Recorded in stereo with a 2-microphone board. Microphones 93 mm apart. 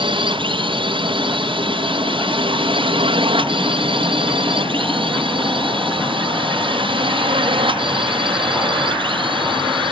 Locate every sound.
0.0 s a drone: 60° right (ahead or behind)